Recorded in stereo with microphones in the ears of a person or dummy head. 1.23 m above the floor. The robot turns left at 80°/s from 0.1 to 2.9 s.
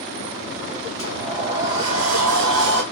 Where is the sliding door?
20° left, 3.5 m; by 2.8 s 125° right, 3.5 m.